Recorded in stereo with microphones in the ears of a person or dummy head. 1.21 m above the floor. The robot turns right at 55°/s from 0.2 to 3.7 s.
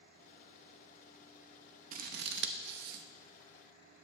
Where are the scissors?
45° right (ahead or behind), 0.7 m; by 3.0 s 50° right (ahead or behind), 0.7 m.